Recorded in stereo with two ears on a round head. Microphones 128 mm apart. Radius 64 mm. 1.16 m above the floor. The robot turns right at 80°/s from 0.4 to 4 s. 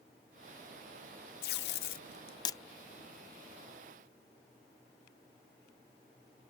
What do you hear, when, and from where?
1.4 s tape being pulled: 65° left (ahead or behind); by 2.6 s 20° left (ahead or behind)